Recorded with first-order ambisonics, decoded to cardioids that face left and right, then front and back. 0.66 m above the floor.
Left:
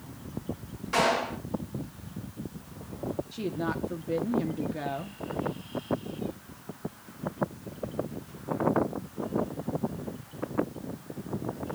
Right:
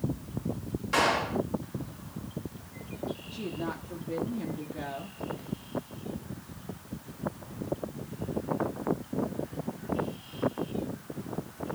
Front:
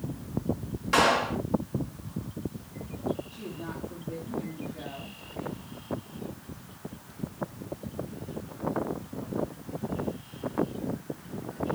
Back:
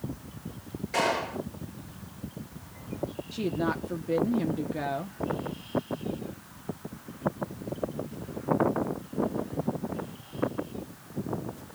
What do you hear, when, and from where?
0.9 s a clap: 5° right, 5 m
3.3 s a woman speaking: 155° left, 0.9 m